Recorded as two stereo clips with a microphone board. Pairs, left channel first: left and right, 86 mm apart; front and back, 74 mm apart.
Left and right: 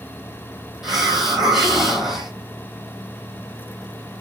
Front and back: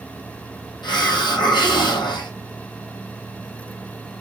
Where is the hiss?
Straight ahead, 1.5 m.